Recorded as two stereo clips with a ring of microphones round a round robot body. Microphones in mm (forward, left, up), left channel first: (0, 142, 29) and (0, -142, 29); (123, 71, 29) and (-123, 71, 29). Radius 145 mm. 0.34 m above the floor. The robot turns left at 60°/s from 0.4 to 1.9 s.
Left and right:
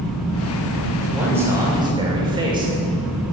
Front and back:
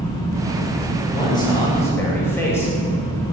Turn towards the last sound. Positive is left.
turn(degrees=-60)